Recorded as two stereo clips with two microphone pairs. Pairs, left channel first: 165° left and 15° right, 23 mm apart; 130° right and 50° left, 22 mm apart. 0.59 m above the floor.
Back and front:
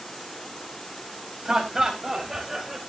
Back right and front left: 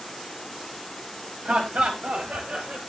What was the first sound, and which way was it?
Laughter, 45° left.